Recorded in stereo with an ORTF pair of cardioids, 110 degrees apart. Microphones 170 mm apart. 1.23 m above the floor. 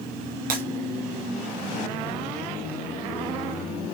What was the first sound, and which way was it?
Breaking glass, 60° right.